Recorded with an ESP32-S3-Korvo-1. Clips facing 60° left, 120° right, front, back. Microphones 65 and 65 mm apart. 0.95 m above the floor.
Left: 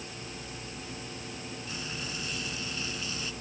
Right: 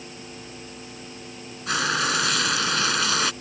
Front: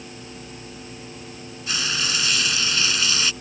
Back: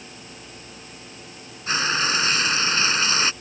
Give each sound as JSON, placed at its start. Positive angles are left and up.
{"t": 1.7, "sound": "frying", "azimuth_deg": -125}